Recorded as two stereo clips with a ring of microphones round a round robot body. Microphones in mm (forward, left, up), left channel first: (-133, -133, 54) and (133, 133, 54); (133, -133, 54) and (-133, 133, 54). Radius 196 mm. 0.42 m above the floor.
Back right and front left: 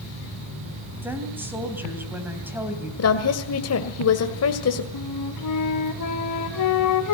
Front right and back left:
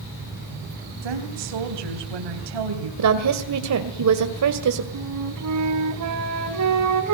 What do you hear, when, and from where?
1.0 s a woman speaking: 130° left, 3.5 m
3.0 s a woman speaking: 175° left, 1.9 m
4.9 s a flute: straight behind, 2.5 m